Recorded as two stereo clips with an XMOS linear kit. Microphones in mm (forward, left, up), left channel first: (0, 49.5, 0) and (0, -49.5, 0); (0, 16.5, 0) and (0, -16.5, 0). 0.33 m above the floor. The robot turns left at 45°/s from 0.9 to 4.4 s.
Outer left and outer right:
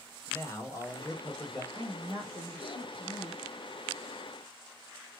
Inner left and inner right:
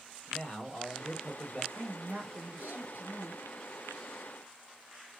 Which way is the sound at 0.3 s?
50° left.